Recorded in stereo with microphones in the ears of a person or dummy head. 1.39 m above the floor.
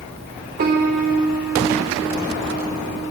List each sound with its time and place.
0.6 s a piano: 45° right (ahead or behind), 3.5 m